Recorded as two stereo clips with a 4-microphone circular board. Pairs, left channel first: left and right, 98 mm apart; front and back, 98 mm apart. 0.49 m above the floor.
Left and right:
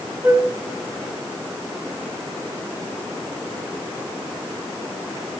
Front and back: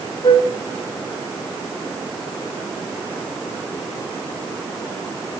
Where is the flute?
30° right, 1.1 m.